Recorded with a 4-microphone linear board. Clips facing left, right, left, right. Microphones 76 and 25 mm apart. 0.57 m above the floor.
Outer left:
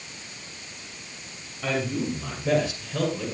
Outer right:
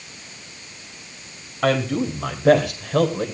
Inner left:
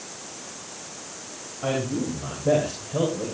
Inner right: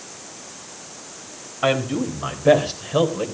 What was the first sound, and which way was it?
A man speaking, 70° right (ahead or behind).